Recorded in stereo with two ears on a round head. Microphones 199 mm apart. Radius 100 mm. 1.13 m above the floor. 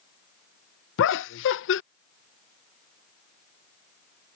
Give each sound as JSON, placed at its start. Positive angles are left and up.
{"t": 1.0, "sound": "laughter", "side_deg": 60}